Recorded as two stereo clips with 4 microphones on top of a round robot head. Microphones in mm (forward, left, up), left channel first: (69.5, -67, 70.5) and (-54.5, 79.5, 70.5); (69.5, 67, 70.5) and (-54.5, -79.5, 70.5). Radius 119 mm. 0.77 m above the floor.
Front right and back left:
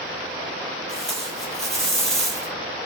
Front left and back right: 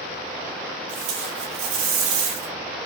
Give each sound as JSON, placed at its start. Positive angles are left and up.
{"t": 0.9, "sound": "tape being pulled", "azimuth_deg": -140, "distance_m": 3.5}